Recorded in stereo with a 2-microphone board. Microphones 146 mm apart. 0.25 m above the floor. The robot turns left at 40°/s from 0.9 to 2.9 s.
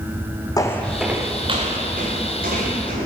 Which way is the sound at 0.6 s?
25° left (ahead or behind).